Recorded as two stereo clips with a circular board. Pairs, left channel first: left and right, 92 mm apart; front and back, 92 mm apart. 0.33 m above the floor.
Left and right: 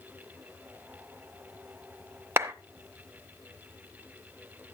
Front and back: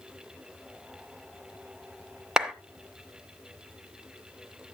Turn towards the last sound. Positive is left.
turn(degrees=-105)